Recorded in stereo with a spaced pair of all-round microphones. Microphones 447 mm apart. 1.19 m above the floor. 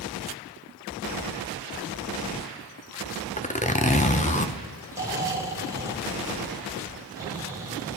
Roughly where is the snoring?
Centre.